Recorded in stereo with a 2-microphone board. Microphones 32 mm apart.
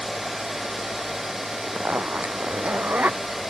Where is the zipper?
60° right (ahead or behind).